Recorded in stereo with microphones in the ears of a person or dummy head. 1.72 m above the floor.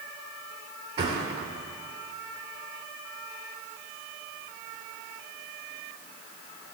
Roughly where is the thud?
Right.